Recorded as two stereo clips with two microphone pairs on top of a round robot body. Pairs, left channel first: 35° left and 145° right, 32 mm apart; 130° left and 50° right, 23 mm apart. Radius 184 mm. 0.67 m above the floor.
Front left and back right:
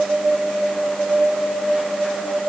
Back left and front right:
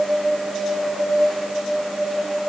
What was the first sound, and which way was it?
Only background noise.